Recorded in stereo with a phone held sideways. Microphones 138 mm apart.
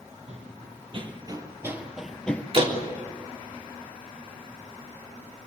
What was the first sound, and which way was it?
Running footsteps, 50° right (ahead or behind).